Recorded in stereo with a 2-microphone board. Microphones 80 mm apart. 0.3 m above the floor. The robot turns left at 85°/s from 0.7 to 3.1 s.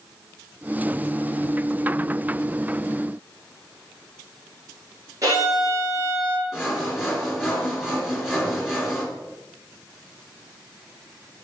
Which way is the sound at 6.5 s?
5° right (ahead or behind).